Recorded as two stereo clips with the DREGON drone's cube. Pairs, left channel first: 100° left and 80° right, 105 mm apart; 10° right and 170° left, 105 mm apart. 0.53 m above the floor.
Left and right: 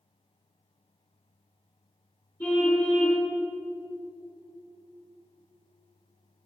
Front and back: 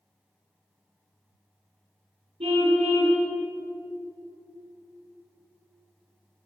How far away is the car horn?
About 6.5 m.